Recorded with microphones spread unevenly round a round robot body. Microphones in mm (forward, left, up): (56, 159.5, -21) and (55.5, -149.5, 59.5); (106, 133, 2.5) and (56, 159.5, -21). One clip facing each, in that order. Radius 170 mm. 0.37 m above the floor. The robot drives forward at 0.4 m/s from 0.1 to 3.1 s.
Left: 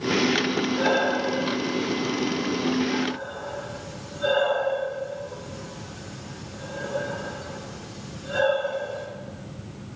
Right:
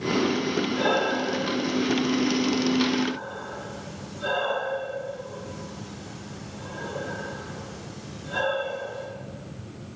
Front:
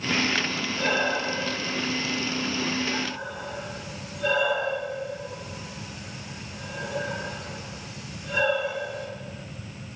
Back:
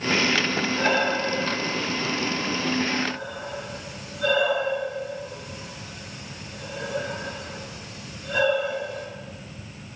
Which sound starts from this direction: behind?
Breathing, at 0.8 s.